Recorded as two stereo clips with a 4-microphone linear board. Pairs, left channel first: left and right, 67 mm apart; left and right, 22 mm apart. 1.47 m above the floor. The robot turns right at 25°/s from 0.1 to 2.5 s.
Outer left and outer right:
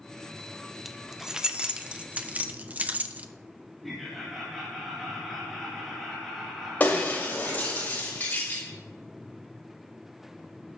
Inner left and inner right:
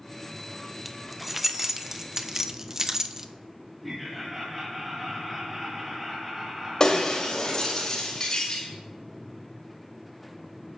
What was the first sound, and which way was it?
Keys jangling, 5° right (ahead or behind).